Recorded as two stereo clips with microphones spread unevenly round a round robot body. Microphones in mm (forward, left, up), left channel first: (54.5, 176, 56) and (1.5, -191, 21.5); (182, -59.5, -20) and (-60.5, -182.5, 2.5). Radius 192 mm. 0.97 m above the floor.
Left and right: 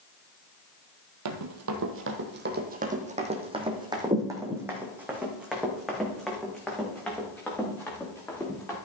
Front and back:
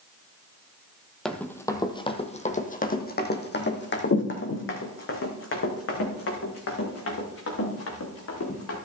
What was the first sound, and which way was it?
Running footsteps, 65° right.